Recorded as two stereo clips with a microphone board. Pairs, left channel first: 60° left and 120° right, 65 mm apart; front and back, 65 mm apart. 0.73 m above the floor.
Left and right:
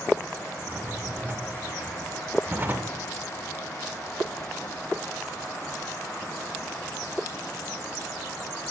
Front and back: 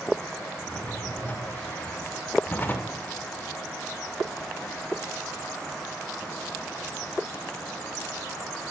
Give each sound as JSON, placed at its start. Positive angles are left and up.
{"t": 0.6, "sound": "a drawer", "azimuth_deg": -60, "distance_m": 1.4}